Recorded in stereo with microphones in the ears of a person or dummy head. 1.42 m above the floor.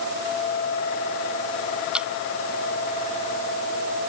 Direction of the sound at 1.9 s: 10° right (ahead or behind).